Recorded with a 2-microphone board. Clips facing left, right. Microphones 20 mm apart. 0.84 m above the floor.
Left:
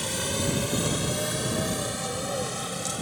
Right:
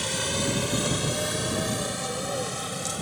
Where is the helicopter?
10° right (ahead or behind); by 3.0 s centre (ahead or behind).